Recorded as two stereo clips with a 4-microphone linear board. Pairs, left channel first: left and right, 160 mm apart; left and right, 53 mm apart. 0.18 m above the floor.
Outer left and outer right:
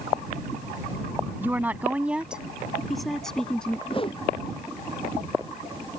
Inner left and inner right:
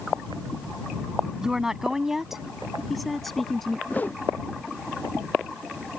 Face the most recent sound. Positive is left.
turn(degrees=35)  # may be behind; listen again after turning